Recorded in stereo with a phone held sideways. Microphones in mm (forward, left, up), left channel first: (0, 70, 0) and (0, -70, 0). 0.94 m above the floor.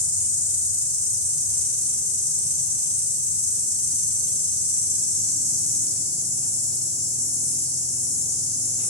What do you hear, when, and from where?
0.0 s an insect: 45° left (ahead or behind), 1.1 m